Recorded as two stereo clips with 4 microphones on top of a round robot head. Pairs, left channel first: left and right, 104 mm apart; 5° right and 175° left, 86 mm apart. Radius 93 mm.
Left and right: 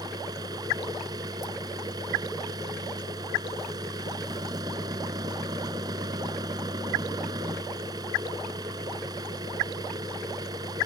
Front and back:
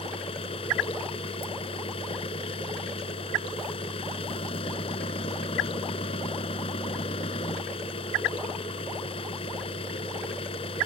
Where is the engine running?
30° right.